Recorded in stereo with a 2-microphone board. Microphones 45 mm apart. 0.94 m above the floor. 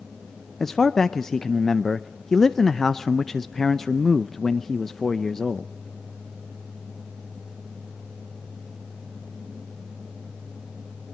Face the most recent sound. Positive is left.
turn(degrees=5)  # may be behind; listen again after turning